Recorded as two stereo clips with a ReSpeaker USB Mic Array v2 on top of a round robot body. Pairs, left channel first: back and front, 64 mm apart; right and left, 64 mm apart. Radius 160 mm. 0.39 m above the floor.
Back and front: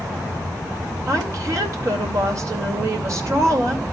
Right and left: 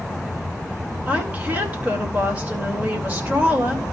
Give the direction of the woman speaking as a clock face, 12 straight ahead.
11 o'clock.